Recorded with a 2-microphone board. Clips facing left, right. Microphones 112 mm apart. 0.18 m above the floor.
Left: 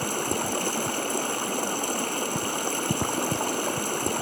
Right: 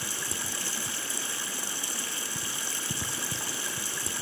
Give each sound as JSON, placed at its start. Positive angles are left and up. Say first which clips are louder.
{"t": 0.0, "sound": "running water", "louder": "left 11 dB", "side_deg": 55, "distance_m": 0.9}